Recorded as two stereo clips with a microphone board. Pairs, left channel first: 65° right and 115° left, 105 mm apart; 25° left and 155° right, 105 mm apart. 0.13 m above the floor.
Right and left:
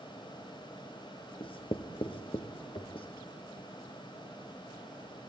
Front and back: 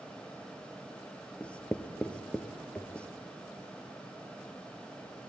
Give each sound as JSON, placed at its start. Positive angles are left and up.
{"t": 1.4, "sound": "writing", "azimuth_deg": -55, "distance_m": 1.5}